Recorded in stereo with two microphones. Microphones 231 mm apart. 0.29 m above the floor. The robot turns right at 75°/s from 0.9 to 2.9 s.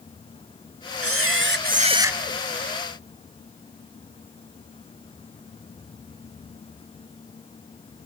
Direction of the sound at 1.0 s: 90° right.